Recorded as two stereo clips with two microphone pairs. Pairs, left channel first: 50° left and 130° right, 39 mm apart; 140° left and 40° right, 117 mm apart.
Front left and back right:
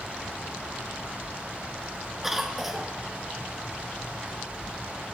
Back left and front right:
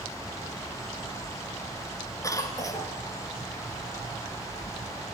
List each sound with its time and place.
2.2 s a cough: 145° left, 1.3 m